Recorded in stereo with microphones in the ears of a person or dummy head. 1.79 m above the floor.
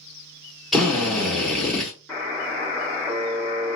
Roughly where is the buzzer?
Centre.